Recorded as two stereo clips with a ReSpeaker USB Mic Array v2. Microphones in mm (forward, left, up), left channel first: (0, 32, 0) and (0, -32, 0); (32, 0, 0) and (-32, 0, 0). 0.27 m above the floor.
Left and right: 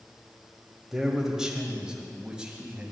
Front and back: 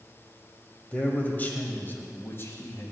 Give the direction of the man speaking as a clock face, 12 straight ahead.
1 o'clock.